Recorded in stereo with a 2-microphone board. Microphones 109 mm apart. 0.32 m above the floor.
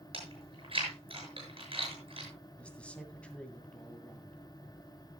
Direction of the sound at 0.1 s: 55° right (ahead or behind).